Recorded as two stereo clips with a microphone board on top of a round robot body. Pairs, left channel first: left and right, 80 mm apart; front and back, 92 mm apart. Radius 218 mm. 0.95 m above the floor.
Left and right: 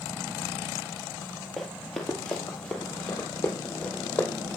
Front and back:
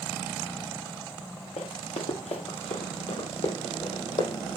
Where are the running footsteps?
Straight ahead, 1.8 m; by 4.6 s 20° left, 3 m.